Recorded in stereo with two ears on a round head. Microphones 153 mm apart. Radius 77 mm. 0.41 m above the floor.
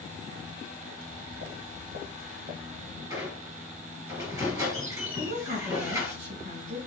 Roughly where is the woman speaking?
Right.